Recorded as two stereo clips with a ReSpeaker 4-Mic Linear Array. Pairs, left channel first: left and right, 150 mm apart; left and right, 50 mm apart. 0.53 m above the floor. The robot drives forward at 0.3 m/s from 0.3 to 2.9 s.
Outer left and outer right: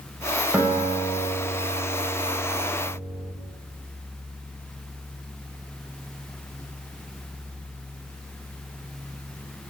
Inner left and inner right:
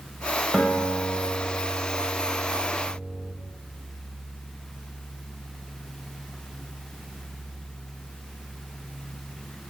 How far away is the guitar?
About 0.5 m.